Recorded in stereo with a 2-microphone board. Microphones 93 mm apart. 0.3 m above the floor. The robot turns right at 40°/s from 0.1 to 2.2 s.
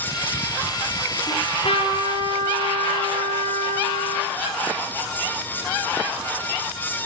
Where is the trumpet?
80° left, 6 m; by 4.3 s 120° left, 6 m.